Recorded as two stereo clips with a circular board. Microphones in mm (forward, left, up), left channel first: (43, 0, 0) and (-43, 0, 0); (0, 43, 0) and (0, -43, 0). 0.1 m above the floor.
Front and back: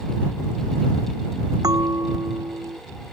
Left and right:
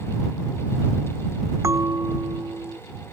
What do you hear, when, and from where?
1.6 s a bell: 140° right